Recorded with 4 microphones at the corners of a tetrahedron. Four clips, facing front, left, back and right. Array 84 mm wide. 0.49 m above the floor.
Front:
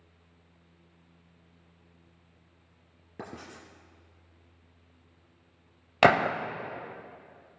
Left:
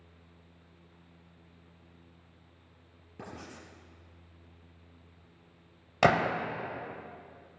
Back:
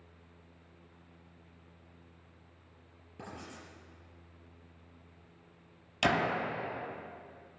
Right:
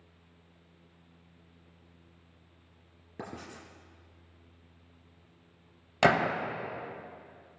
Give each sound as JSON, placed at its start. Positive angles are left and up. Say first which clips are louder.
{"t": 3.2, "sound": "writing", "louder": "right 2 dB, front 3 dB", "azimuth_deg": -35, "distance_m": 3.5}
{"t": 6.0, "sound": "a gunshot", "louder": "even, front 8 dB", "azimuth_deg": 10, "distance_m": 0.8}